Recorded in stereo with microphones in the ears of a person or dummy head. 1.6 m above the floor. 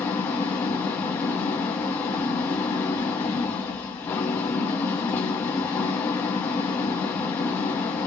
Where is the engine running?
10° left (ahead or behind), 0.8 m.